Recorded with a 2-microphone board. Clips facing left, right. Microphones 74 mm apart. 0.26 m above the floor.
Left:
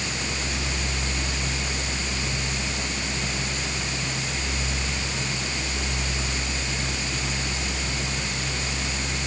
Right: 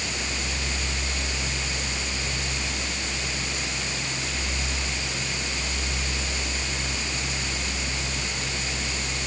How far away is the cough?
I don't hear a cough.